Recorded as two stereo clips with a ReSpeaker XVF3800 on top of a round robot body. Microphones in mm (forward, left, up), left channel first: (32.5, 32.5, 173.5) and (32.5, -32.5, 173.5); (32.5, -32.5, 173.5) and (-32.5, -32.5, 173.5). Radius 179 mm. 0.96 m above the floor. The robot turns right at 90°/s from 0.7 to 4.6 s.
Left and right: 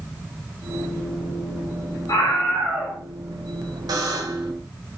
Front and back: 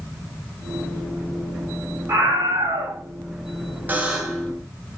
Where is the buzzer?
120° right, 1.2 m; by 4.5 s 65° right, 1.2 m.